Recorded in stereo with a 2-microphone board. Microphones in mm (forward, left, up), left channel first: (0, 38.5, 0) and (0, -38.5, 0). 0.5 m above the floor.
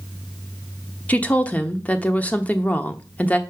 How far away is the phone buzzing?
I don't hear a phone buzzing.